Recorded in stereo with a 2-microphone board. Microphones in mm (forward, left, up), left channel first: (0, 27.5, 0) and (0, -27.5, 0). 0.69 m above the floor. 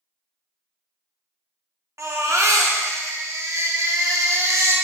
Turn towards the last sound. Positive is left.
turn(degrees=-65)  # may be behind; listen again after turning